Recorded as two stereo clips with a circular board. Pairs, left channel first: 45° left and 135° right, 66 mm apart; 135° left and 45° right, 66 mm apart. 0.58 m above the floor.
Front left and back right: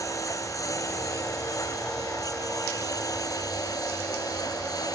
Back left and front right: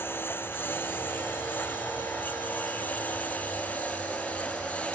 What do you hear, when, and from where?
0.0 s a lawn mower: 80° left; by 5.0 s 65° left